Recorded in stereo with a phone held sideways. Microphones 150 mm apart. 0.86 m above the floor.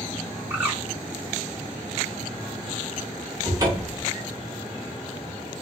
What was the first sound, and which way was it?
A bird, 15° right (ahead or behind).